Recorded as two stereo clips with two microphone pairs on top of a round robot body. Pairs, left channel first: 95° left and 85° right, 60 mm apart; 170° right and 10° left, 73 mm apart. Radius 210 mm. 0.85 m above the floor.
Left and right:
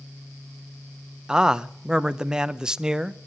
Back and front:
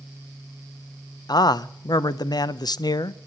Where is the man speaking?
160° right, 0.8 m.